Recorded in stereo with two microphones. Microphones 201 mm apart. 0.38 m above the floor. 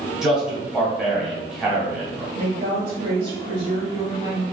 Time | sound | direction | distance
0.2 | a man speaking | 5° right (ahead or behind) | 1.6 m
2.4 | a woman speaking | 25° right (ahead or behind) | 1.5 m